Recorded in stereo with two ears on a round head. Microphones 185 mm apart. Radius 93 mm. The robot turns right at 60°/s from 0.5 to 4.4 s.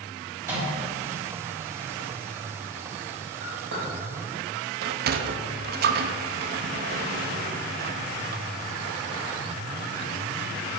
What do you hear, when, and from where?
0.4 s a microwave: 10° right (ahead or behind), 3.5 m; by 0.7 s centre (ahead or behind), 3.5 m
3.4 s a clink: 75° right (ahead or behind), 3.5 m; by 3.9 s 40° right (ahead or behind), 3.5 m
4.8 s a sliding door: 50° right (ahead or behind), 0.6 m